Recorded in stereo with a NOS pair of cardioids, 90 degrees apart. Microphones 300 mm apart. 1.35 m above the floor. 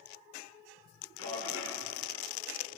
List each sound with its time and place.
1.2 s a man speaking: 50° left, 3.5 m